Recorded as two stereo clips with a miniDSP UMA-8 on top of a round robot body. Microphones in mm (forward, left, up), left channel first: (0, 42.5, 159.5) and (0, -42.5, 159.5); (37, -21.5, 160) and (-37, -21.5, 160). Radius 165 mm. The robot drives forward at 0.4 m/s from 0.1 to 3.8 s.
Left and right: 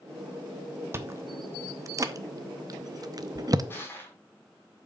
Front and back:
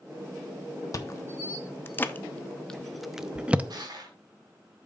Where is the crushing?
150° left, 4 m; by 4.2 s 155° left, 4 m.